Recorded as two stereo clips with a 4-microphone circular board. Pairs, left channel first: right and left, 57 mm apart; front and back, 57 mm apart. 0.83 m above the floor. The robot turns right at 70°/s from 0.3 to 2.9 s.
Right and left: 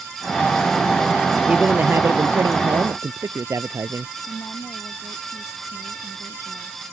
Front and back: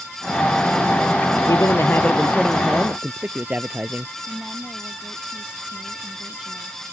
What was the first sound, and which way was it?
A man speaking, 15° left.